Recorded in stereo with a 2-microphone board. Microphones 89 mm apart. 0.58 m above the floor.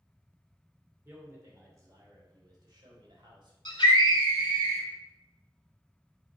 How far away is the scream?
About 2 m.